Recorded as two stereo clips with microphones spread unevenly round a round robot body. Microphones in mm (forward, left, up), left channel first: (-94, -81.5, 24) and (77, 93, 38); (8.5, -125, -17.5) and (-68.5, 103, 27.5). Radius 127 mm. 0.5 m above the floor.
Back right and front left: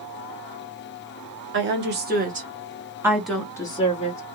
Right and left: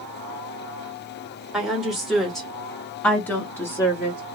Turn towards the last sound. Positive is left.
turn(degrees=-125)